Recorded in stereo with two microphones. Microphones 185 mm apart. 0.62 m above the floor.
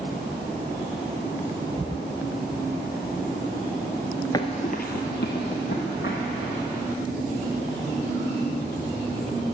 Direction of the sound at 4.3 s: 20° left (ahead or behind).